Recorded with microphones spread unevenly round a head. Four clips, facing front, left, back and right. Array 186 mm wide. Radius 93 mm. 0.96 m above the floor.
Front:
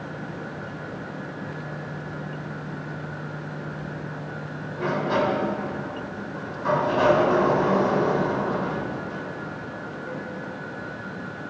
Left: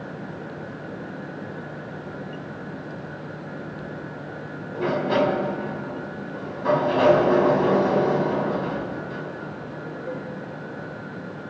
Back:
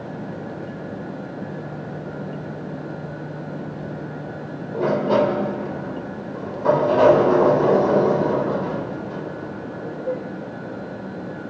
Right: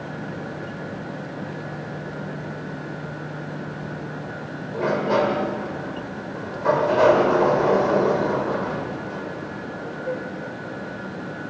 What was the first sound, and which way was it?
A sliding door, 160° right.